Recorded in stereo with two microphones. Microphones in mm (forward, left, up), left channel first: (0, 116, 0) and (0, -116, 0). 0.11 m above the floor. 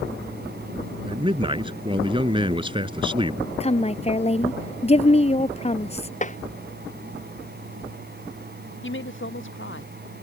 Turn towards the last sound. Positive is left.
turn(degrees=55)  # may be behind; listen again after turning